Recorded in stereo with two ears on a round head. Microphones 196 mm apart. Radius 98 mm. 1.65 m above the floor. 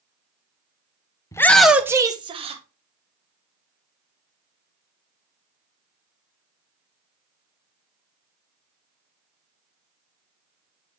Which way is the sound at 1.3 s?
15° left (ahead or behind).